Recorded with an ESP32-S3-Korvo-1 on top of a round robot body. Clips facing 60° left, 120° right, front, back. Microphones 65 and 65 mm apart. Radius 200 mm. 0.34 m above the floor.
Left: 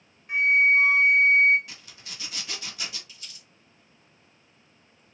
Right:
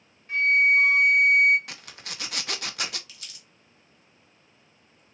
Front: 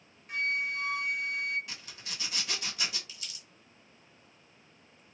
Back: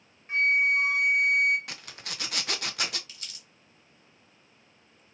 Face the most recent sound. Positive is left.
turn(degrees=-140)